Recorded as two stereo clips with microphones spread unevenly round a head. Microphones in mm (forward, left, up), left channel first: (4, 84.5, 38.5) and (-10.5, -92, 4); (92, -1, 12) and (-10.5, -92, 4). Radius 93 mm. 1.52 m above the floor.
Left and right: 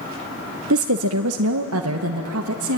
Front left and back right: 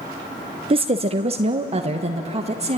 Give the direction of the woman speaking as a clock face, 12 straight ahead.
3 o'clock.